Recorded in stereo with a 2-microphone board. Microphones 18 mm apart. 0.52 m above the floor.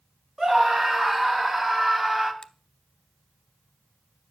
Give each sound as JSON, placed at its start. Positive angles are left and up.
{"t": 0.4, "sound": "a scream", "side_deg": -35, "distance_m": 3.5}
{"t": 2.4, "sound": "a finger snap", "side_deg": 45, "distance_m": 0.8}